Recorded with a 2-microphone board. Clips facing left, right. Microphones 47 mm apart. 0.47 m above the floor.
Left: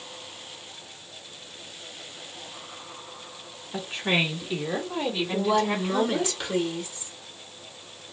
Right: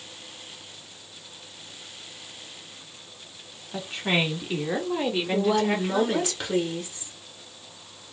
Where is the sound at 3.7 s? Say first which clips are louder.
Even; centre (ahead or behind), 1.2 m; by 6.3 s 55° right (ahead or behind), 2.0 m.